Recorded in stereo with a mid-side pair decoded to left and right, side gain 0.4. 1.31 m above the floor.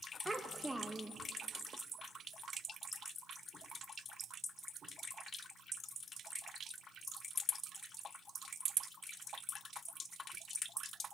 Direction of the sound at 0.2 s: 10° right.